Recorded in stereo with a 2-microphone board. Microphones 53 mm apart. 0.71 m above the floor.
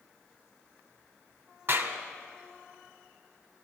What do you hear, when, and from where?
1.7 s a clap: 55° right (ahead or behind), 2.5 m